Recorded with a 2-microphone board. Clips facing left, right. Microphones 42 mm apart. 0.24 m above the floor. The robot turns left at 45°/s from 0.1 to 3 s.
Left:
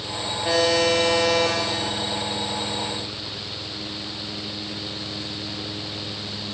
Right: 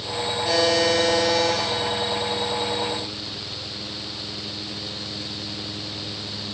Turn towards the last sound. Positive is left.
turn(degrees=45)